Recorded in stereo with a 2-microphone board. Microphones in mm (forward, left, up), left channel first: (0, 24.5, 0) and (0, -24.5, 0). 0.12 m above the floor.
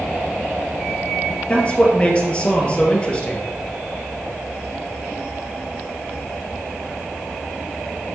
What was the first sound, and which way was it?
A man speaking, 25° left (ahead or behind).